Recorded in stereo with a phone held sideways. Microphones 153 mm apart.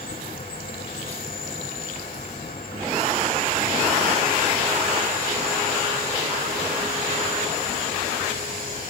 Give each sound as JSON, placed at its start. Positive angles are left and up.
{"t": 0.0, "sound": "an insect", "side_deg": 80, "distance_m": 4.0}